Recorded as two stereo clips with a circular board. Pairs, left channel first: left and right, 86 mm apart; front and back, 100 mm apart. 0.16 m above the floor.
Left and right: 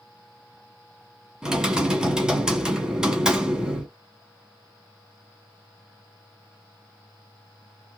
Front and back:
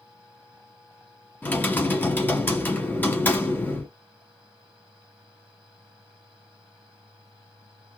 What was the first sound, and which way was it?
Typing on a keyboard, 25° right.